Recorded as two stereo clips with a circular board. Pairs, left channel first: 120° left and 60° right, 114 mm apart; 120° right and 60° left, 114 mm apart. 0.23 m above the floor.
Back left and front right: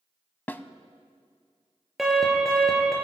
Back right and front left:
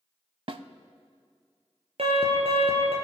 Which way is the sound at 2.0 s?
30° left.